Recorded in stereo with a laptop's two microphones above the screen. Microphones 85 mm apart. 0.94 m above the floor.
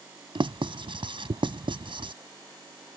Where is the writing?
75° right (ahead or behind).